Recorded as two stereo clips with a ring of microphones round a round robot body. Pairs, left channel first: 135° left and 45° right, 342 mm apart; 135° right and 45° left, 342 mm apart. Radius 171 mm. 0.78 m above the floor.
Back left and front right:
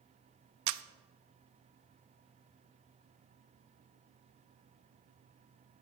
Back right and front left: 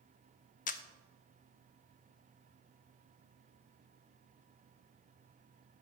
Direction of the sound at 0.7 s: 70° right.